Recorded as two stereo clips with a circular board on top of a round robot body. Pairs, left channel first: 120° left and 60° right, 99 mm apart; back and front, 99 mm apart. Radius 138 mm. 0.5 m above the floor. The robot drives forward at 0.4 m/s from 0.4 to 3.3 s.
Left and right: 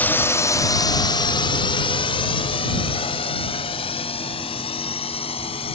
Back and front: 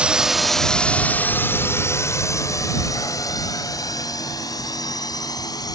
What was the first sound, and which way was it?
A drone, 70° left.